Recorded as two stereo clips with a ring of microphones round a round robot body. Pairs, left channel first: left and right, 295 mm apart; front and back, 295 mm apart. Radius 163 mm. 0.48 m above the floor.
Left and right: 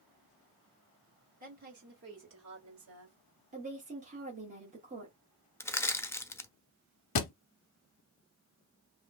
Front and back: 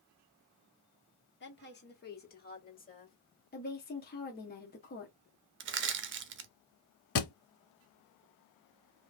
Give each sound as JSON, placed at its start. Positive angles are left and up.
{"t": 1.4, "sound": "a woman speaking", "azimuth_deg": -35, "distance_m": 1.8}
{"t": 3.5, "sound": "a woman speaking", "azimuth_deg": -40, "distance_m": 1.2}
{"t": 5.6, "sound": "crushing", "azimuth_deg": 165, "distance_m": 0.7}
{"t": 7.2, "sound": "a thud", "azimuth_deg": 50, "distance_m": 0.6}